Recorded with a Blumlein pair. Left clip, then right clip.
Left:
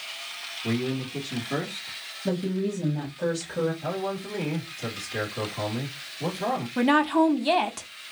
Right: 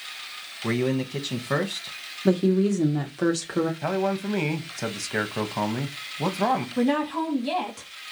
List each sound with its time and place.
0.6 s a man speaking: 35° right, 0.9 m
2.2 s a woman speaking: 65° right, 0.7 m
3.8 s a man speaking: 40° right, 1.0 m
6.8 s a woman speaking: 25° left, 0.7 m